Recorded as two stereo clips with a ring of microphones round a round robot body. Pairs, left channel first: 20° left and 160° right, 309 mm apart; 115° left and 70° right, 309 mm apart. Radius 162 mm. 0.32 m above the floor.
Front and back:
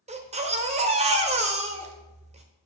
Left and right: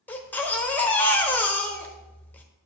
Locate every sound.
0.1 s a baby crying: 175° right, 0.9 m